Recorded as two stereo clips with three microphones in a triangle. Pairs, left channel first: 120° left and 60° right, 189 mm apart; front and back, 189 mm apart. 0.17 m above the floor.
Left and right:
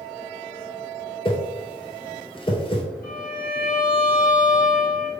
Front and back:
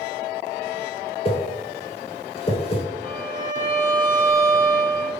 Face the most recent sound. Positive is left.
turn(degrees=95)